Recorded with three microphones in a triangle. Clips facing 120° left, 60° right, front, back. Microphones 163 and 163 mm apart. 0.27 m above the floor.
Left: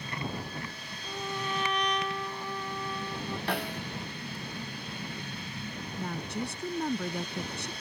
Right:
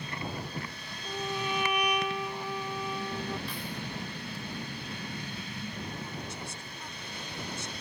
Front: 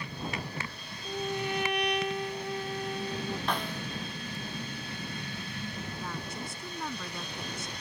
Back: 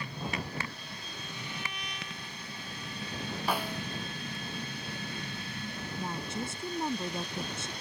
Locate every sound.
1.1 s a trumpet: 20° left
3.5 s a snare drum: 100° left
6.0 s a woman speaking: 120° left